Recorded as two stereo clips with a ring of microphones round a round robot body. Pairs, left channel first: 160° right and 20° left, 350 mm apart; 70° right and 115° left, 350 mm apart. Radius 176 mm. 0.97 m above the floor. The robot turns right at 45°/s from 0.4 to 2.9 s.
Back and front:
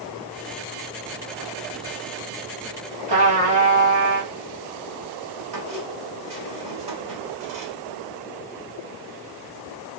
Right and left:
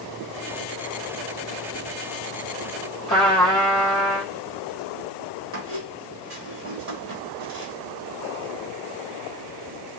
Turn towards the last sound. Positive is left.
turn(degrees=60)